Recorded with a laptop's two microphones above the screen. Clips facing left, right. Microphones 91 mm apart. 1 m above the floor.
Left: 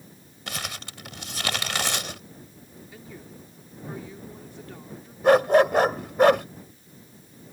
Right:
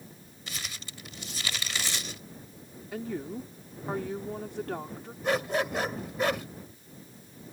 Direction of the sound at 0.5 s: 70° left (ahead or behind).